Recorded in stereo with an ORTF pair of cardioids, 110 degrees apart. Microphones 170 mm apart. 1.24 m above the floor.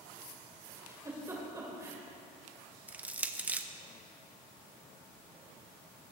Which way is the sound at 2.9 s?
10° right.